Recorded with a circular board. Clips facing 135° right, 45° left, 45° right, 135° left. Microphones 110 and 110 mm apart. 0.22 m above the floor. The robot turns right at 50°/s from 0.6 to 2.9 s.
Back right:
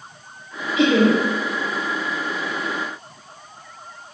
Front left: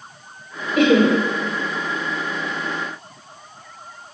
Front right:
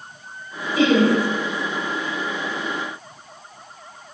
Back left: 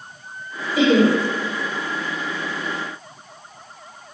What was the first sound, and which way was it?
Laughter, 55° left.